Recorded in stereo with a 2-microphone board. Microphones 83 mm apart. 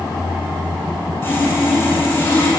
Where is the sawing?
30° left (ahead or behind), 8 m.